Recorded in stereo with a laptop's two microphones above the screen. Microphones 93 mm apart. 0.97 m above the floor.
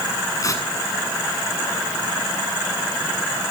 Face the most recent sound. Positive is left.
turn(degrees=35)  # may be behind; listen again after turning